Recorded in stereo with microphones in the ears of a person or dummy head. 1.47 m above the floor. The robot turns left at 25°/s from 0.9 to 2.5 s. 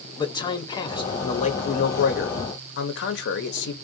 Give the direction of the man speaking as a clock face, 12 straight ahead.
7 o'clock.